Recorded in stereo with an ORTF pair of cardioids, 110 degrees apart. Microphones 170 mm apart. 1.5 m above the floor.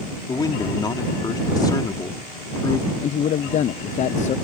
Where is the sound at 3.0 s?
45° left.